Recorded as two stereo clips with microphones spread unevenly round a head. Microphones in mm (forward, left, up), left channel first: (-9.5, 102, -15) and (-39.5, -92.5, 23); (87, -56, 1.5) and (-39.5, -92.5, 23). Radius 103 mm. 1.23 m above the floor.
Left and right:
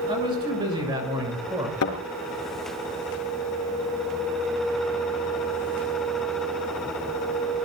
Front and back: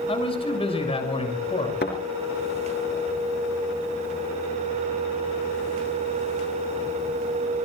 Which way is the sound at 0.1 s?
30° right.